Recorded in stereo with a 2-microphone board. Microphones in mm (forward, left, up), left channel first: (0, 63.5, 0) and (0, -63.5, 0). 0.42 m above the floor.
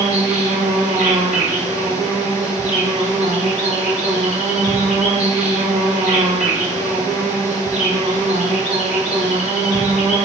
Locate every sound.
0.0 s an insect: 80° right, 1.3 m